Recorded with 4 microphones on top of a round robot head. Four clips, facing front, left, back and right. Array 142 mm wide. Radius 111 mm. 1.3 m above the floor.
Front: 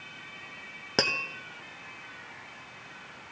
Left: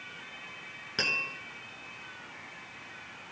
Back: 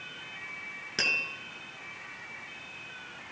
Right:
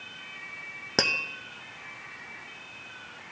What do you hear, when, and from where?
1.0 s tapping: 45° right, 0.7 m